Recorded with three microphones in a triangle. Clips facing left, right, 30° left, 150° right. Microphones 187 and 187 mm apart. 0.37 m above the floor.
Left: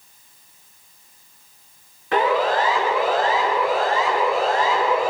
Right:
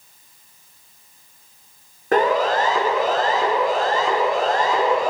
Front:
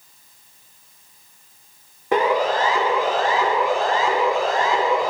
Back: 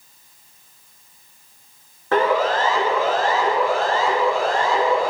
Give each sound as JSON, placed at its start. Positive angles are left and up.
{"t": 2.1, "sound": "a siren", "azimuth_deg": -45, "distance_m": 6.5}